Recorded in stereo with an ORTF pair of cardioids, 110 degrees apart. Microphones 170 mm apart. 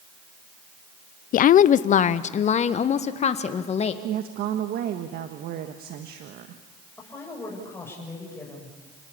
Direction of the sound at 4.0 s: 70° right.